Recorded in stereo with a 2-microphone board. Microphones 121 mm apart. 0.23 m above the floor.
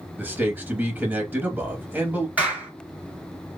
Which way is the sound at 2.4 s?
10° right (ahead or behind).